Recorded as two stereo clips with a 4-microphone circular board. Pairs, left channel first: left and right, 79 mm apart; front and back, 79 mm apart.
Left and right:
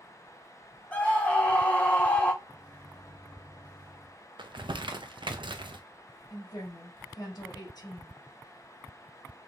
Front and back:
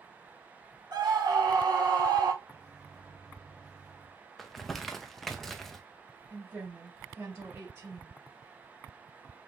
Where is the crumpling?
85° right, 0.5 m.